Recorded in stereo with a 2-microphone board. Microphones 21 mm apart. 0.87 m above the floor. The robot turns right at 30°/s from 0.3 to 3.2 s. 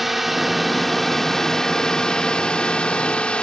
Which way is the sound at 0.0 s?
15° right.